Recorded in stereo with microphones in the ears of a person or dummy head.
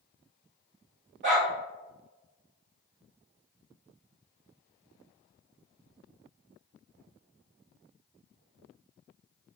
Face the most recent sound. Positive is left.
turn(degrees=-40)  # may be behind; listen again after turning